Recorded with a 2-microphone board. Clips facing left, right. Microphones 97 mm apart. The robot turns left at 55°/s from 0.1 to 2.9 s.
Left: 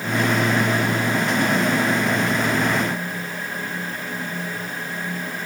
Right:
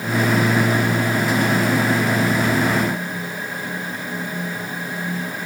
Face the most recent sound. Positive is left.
No sound to turn to.